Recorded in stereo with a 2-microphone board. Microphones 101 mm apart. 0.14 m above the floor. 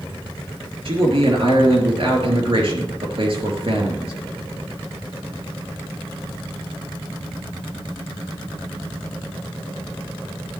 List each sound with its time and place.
0.8 s a man speaking: 60° right (ahead or behind), 3 m